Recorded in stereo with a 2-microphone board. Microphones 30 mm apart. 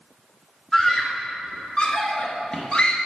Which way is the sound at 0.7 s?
15° left (ahead or behind).